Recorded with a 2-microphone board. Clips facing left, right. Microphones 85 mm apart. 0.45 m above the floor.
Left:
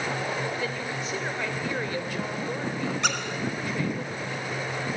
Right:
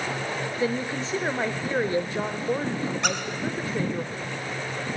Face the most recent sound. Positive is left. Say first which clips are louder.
# right 1 dB
turn(degrees=0)  # may be behind; listen again after turning